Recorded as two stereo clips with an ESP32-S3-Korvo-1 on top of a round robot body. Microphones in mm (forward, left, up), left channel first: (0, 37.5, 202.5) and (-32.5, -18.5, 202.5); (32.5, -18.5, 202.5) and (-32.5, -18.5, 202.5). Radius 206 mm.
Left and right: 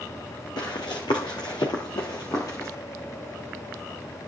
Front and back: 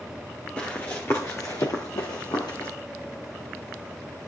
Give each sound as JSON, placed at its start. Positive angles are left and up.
{"t": 0.6, "sound": "running footsteps", "azimuth_deg": 70, "distance_m": 1.9}